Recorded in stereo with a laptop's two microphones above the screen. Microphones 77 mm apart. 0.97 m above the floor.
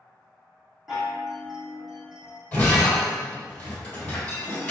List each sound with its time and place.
0.9 s a chime: 5° right (ahead or behind), 1.3 m
2.5 s breaking glass: 20° left (ahead or behind), 1.8 m